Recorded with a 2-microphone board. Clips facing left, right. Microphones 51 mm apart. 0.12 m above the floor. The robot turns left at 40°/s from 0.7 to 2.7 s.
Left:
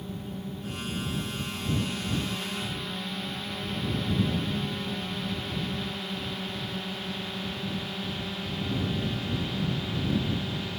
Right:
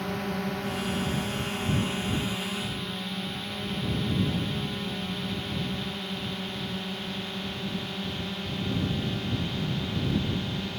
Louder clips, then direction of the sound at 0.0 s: Right 7 dB; 80° right.